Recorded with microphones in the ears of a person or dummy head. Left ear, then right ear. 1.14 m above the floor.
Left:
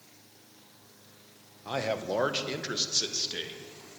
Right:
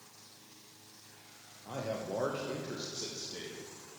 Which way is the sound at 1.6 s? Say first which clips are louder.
Left 7 dB; 55° left (ahead or behind).